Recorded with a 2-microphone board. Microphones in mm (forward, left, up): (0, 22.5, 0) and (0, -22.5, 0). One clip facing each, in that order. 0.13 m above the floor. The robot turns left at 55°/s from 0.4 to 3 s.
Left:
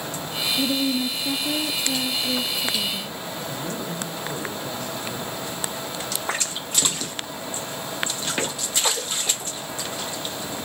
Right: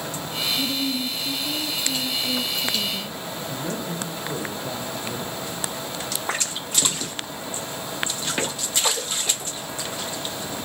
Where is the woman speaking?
115° left, 2 m; by 3.2 s 20° right, 2 m.